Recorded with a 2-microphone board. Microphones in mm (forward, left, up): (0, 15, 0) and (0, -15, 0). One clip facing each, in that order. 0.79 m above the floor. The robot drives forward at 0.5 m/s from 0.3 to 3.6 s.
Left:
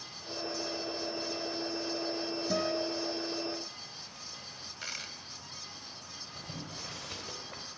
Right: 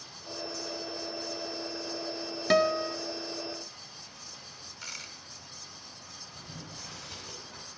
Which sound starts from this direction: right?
A guitar, at 2.5 s.